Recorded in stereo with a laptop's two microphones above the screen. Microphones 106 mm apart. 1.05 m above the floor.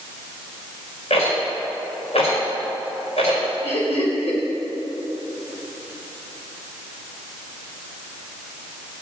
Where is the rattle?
70° left (ahead or behind), 4.5 m.